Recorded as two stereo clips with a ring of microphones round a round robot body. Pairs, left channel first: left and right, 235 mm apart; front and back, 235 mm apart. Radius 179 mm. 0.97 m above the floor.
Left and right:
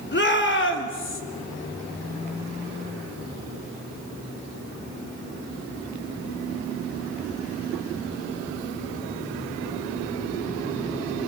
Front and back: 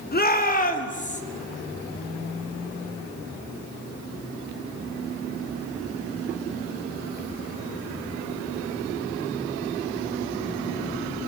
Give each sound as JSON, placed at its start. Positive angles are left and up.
{"t": 0.1, "sound": "a shout", "azimuth_deg": 50, "distance_m": 3.0}